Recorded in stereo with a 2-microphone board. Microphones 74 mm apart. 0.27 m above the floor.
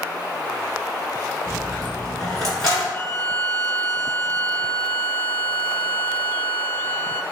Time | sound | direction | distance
1.5 | a dropped coin | 10° left (ahead or behind) | 1.5 m
2.9 | a violin | 30° left (ahead or behind) | 0.5 m